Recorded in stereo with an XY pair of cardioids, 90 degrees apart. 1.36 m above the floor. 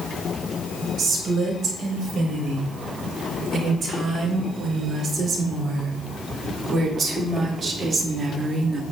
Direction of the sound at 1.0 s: 70° right.